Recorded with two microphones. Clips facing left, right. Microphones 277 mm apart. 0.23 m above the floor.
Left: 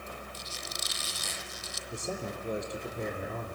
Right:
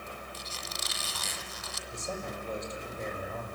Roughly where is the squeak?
Right.